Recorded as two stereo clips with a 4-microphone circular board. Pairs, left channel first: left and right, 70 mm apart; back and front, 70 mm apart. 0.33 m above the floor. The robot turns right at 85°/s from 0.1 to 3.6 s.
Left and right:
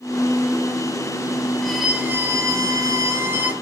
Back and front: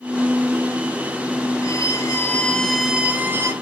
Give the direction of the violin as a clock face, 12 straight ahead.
6 o'clock.